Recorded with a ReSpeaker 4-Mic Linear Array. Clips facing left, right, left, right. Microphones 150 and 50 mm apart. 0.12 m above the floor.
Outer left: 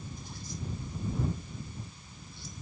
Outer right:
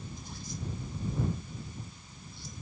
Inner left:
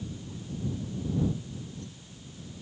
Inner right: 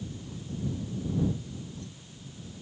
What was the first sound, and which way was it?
Only background noise.